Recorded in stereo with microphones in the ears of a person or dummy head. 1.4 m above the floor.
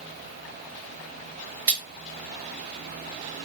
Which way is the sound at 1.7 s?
85° right.